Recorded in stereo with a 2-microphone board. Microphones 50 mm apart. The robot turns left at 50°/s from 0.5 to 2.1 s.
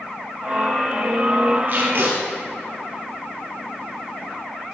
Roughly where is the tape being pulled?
Right.